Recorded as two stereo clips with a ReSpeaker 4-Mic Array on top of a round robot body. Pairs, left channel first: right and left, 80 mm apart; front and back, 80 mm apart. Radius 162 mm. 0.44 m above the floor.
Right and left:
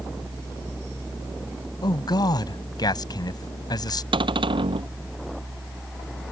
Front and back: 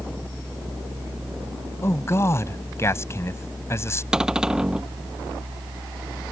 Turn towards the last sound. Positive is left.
turn(degrees=100)